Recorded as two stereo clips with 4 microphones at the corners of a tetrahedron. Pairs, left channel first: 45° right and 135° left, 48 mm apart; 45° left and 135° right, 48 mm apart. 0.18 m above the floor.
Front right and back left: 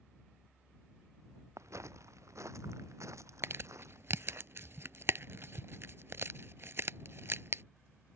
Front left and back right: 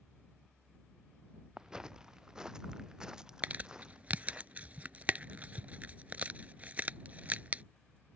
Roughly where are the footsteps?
Behind left.